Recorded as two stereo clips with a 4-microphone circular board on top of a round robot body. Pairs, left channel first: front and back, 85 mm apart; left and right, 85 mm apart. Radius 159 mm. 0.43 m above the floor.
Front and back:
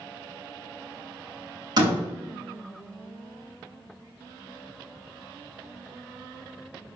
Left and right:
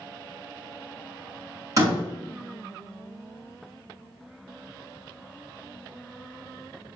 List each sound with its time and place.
1.8 s a door slam: 140° right, 4.5 m